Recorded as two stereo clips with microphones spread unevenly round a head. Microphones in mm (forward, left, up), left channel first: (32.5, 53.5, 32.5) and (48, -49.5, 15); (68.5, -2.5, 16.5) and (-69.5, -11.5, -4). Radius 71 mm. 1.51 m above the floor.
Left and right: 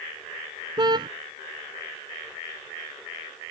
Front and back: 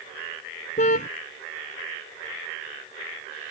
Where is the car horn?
30° right.